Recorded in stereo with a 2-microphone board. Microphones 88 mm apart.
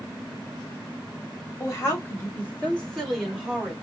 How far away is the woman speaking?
About 1.7 m.